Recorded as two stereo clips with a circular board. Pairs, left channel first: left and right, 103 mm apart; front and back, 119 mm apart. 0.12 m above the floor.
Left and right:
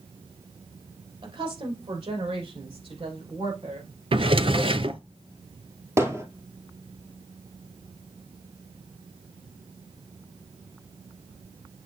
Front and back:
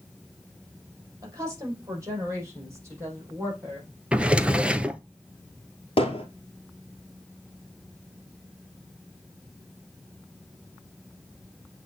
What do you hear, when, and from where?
1.2 s a woman speaking: 120° right, 4 m; by 3.9 s 110° right, 5.5 m
4.1 s a drawer: 100° right, 0.5 m
6.0 s hammering: 30° right, 2.5 m